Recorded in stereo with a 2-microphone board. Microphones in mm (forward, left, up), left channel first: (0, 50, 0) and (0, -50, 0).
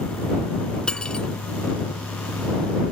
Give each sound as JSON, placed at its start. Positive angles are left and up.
{"t": 0.9, "sound": "cutlery clinking", "side_deg": 10}